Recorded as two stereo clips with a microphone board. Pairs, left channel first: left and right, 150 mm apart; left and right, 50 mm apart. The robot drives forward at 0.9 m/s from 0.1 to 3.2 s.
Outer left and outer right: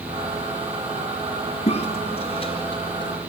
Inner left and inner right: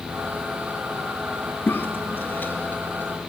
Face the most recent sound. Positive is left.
turn(degrees=30)  # may be behind; listen again after turning